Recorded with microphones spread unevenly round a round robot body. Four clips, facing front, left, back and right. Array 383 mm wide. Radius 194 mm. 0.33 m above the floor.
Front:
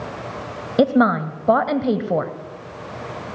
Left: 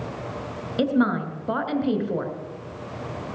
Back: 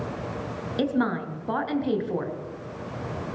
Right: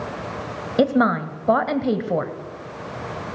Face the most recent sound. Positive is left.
turn(degrees=-25)